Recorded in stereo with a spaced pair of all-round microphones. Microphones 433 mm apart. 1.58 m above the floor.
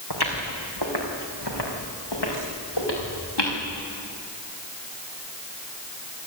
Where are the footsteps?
60° left (ahead or behind), 4 m; by 3.6 s 75° left (ahead or behind), 7 m.